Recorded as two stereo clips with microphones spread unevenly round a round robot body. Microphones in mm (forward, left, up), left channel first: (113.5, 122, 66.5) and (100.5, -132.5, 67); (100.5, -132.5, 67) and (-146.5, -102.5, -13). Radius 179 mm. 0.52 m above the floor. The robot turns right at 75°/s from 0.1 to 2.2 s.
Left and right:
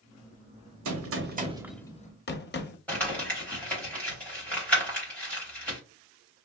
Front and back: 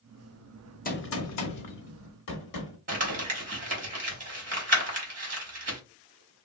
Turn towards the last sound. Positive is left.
turn(degrees=170)